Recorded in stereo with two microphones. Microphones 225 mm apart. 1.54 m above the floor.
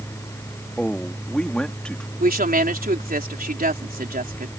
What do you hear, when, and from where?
0.8 s a man speaking: 5° left (ahead or behind)
2.2 s a woman speaking: 40° right (ahead or behind)